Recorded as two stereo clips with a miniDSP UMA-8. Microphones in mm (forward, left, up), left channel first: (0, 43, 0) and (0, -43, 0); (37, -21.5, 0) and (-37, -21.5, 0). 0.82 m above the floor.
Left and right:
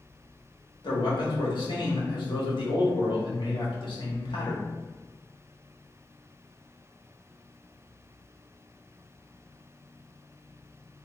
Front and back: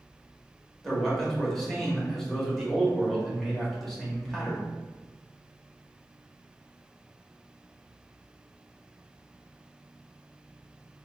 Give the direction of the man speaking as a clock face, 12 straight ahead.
9 o'clock.